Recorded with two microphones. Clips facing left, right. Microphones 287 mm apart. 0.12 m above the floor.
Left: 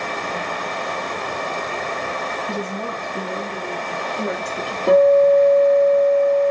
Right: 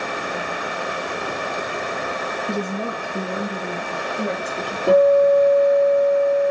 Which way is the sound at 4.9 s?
5° right (ahead or behind).